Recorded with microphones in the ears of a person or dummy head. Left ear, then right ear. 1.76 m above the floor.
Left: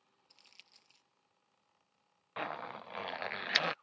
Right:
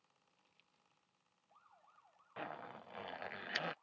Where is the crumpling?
60° left (ahead or behind).